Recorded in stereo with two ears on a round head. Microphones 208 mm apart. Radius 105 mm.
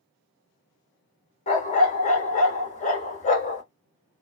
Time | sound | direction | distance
1.5 | a dog barking | 35° left (ahead or behind) | 1.3 m